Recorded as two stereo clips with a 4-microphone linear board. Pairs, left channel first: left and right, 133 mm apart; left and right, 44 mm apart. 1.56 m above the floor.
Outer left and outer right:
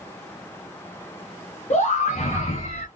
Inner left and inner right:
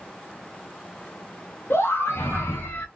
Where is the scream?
65° left (ahead or behind), 1.0 m; by 2.9 s 70° left (ahead or behind), 0.9 m.